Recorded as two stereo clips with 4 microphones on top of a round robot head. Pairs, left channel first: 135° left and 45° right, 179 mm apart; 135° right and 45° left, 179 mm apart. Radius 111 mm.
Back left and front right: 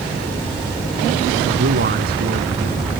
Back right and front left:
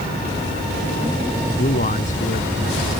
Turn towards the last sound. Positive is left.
turn(degrees=-90)